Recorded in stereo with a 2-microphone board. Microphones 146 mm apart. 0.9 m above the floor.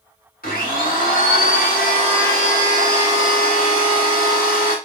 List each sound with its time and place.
0.4 s a blender: 85° left, 1.2 m